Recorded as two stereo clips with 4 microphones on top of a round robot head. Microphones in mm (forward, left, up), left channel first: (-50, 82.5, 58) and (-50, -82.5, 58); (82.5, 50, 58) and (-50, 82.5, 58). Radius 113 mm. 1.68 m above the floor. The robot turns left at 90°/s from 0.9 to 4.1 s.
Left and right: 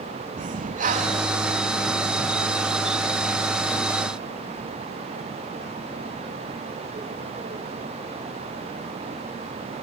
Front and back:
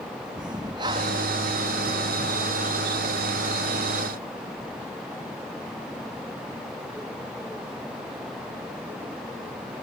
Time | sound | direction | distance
0.4 | breathing | 125° right | ?